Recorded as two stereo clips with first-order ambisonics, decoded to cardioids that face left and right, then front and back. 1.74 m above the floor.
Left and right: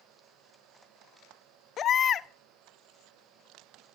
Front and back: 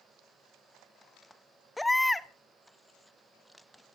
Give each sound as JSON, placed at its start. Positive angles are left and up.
{"t": 1.8, "sound": "a baby crying", "azimuth_deg": 80, "distance_m": 0.6}